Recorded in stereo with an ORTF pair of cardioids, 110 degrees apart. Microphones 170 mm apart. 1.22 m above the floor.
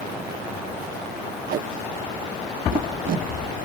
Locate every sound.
1.5 s tape being pulled: 60° right, 0.7 m